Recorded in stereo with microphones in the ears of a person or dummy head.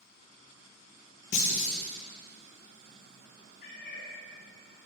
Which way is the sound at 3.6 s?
75° left (ahead or behind).